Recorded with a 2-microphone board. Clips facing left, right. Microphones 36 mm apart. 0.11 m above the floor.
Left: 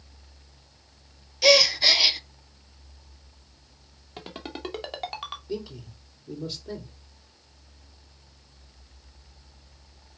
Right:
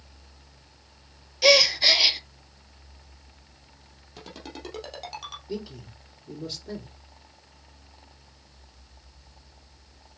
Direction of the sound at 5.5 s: Centre (ahead or behind).